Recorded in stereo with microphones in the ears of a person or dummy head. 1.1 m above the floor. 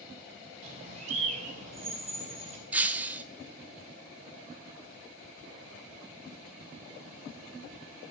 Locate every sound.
0.6 s a bird: 45° right (ahead or behind), 4.5 m
2.7 s breaking glass: 10° right (ahead or behind), 0.9 m